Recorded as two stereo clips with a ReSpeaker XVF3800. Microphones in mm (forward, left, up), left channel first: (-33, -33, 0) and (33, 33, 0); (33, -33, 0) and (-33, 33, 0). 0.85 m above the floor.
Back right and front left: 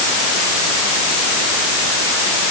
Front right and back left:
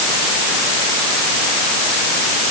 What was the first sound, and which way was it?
Only background noise.